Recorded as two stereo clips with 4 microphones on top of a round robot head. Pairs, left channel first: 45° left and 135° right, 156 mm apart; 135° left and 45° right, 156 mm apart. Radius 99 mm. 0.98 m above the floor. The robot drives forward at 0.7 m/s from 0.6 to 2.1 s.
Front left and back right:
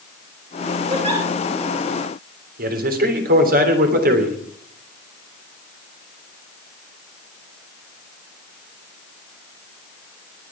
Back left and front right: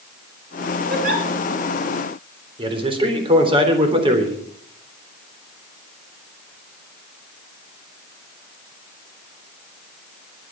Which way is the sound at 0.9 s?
75° right.